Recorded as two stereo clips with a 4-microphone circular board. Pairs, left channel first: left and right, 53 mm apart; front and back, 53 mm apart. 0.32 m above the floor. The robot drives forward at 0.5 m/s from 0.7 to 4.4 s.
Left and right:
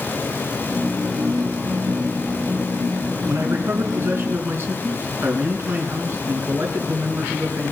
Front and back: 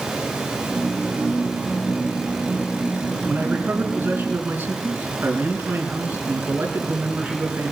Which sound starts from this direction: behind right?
A man speaking, at 3.3 s.